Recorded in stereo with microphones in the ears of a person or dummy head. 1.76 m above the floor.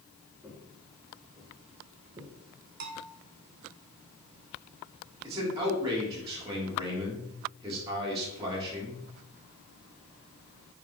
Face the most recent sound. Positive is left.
turn(degrees=-25)  # may be behind; listen again after turning